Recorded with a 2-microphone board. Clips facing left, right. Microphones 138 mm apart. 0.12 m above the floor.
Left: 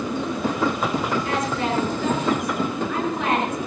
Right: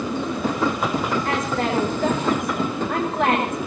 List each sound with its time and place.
1.2 s a woman speaking: 50° right (ahead or behind), 8.5 m